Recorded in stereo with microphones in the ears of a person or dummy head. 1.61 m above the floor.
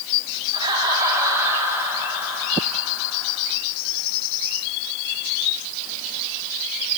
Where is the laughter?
25° right (ahead or behind), 4.5 m; by 3.4 s 5° right (ahead or behind), 5 m.